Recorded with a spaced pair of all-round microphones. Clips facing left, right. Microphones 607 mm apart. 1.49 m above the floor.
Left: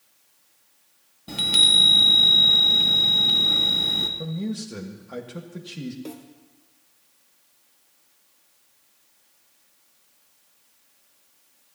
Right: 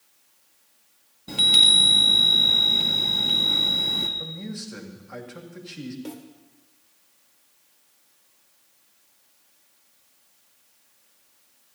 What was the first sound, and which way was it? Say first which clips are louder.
A chime: even; 5° left (ahead or behind).